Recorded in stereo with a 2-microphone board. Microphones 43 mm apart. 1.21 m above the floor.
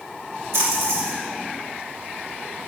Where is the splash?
70° right (ahead or behind), 1.8 m.